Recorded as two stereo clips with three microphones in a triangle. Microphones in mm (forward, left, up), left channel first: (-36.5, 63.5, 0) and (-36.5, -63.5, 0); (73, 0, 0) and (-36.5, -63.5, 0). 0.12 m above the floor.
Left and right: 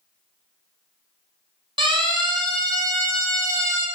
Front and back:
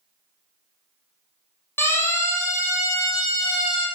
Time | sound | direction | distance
1.8 | a siren | 40° right | 5.5 m